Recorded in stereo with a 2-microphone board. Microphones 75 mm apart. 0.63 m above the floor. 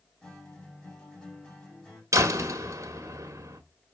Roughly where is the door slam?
Right.